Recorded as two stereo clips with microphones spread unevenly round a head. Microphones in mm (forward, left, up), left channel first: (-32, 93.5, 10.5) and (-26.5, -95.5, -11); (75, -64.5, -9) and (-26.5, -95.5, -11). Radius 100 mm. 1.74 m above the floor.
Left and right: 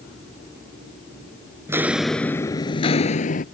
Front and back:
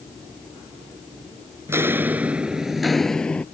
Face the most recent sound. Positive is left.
turn(degrees=95)